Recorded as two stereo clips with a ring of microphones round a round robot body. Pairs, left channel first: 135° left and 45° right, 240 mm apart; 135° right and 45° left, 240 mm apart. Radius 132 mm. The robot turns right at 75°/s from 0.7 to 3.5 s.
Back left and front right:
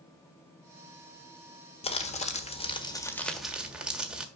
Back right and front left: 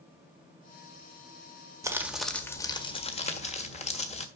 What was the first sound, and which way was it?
Crumpling, 105° left.